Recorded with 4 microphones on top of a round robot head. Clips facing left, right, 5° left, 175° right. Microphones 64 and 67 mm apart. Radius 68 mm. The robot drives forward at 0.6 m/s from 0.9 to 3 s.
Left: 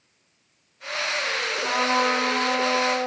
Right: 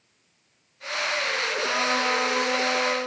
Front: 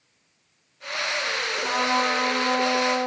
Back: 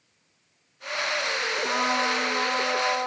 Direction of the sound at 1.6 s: 50° left.